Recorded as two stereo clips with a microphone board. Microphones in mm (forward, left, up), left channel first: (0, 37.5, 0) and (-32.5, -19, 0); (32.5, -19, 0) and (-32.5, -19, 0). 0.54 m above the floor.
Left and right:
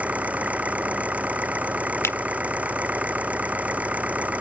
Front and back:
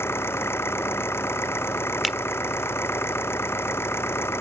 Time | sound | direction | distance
0.0 | an engine running | 50° right | ?
2.0 | a finger snap | 90° left | ?